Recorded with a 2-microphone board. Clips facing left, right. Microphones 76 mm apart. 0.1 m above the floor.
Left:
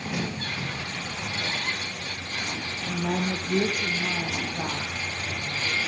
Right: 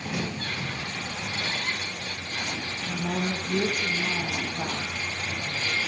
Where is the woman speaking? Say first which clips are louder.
Left 2 dB; 60° left (ahead or behind), 3 m; by 5.8 s 55° left (ahead or behind), 6 m.